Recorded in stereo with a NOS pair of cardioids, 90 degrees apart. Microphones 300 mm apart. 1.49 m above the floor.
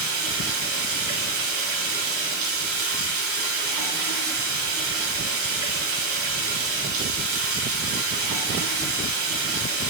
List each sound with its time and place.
0.0 s running water: 70° right, 3 m